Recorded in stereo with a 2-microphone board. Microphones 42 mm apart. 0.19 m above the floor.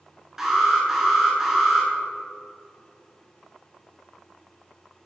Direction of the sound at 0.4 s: 10° right (ahead or behind).